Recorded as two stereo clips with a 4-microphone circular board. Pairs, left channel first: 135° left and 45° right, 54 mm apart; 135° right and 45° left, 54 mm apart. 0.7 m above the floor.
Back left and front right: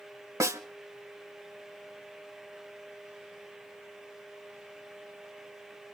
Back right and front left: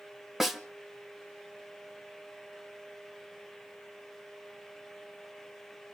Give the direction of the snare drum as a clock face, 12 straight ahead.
1 o'clock.